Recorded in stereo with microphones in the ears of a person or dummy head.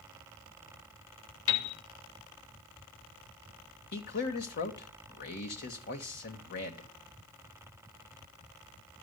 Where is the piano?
75° left (ahead or behind), 3 m.